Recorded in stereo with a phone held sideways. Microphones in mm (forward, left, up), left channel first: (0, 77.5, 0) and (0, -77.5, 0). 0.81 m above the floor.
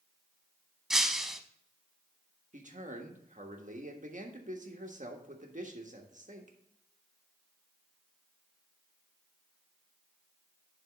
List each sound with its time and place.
0.9 s breaking glass: 5° right (ahead or behind), 0.7 m
2.5 s a man speaking: 55° right (ahead or behind), 1.4 m